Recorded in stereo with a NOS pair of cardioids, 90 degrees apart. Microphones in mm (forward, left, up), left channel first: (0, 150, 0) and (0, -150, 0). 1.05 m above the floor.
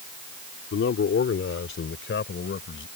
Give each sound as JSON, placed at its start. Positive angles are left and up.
{"t": 0.7, "sound": "a man speaking", "azimuth_deg": 45}